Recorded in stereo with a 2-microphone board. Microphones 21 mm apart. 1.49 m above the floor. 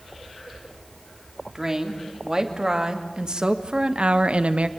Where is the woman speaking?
25° right (ahead or behind), 3.5 m; by 4.7 s 80° right, 1.2 m.